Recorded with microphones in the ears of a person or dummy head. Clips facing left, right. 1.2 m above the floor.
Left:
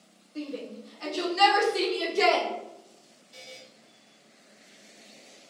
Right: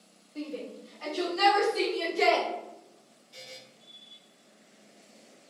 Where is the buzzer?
Centre (ahead or behind), 1.2 m.